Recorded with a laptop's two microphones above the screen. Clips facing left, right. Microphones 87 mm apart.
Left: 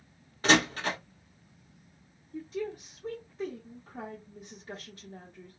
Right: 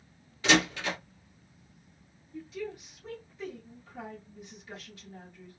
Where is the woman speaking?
40° left (ahead or behind), 1.1 m.